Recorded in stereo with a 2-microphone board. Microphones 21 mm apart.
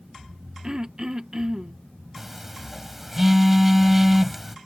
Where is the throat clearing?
35° right (ahead or behind).